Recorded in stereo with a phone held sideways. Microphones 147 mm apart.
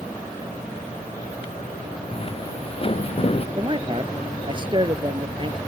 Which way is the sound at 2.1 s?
35° left (ahead or behind).